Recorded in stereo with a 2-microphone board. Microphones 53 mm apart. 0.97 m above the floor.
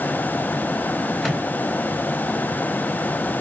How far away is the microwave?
About 4 m.